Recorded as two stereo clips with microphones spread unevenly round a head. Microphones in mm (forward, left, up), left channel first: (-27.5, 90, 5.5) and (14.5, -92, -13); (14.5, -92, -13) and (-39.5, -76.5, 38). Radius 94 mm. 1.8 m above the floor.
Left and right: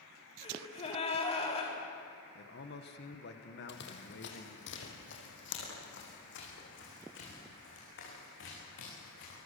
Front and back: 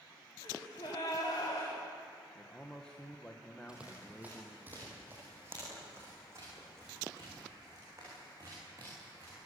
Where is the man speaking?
65° left, 2 m.